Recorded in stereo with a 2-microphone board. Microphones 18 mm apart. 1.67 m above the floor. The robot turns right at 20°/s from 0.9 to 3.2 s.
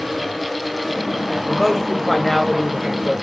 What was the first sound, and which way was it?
A man speaking, straight ahead.